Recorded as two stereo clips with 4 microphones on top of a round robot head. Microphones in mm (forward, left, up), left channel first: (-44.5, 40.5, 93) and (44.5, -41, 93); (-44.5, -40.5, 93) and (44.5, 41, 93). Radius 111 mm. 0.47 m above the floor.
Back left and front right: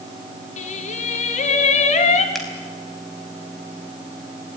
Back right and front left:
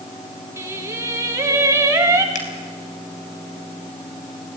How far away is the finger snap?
About 4 m.